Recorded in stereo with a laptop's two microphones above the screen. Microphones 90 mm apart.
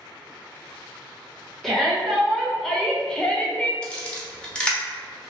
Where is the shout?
Centre (ahead or behind), 1.5 m; by 3.7 s 15° left (ahead or behind), 0.6 m.